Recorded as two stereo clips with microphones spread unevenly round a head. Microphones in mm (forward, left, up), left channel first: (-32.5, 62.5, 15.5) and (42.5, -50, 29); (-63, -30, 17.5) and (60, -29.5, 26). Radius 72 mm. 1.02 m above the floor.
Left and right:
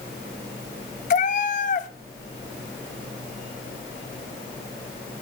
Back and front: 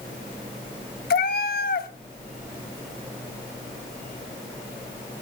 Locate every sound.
1.1 s a cat meowing: 160° left, 0.9 m